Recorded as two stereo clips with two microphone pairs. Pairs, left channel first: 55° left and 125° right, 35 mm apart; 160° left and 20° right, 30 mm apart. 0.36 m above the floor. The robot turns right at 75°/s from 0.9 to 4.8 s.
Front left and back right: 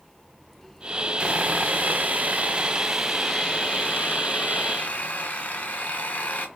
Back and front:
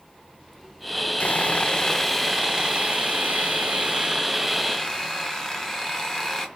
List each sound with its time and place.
1.2 s sawing: straight behind, 1.2 m; by 6.5 s 90° left, 1.2 m